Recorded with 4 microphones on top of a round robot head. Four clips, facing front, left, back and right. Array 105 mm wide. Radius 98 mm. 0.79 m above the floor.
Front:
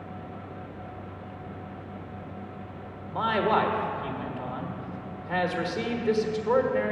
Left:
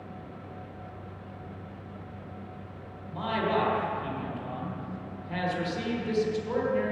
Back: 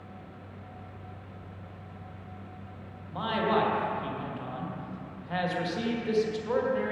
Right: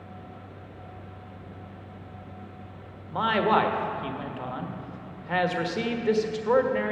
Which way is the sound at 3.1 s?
75° right.